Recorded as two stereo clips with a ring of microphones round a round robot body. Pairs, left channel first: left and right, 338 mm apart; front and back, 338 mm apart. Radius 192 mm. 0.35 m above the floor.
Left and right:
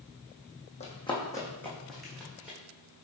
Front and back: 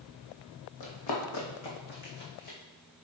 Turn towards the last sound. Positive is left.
turn(degrees=-5)